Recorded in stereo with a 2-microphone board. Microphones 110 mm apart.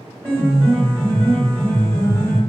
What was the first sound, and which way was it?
A piano, 5° left (ahead or behind).